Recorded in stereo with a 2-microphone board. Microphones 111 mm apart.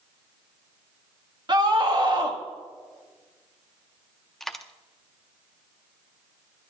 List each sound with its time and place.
1.5 s a scream: 40° right (ahead or behind), 1.4 m
4.4 s a dropped coin: 5° left (ahead or behind), 0.6 m